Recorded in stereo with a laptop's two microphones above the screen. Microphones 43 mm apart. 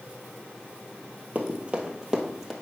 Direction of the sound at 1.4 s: 35° right (ahead or behind).